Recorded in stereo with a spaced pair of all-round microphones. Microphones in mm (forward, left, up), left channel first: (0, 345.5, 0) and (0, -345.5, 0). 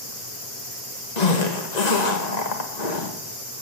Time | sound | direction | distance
1.2 | a zipper | 70° left (ahead or behind) | 1.7 m